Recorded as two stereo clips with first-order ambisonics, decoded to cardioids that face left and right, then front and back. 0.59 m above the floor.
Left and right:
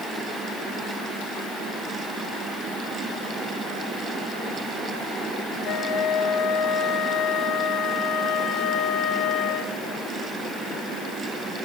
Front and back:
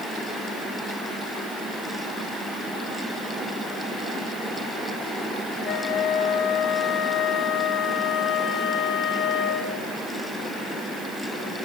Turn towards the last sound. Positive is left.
turn(degrees=35)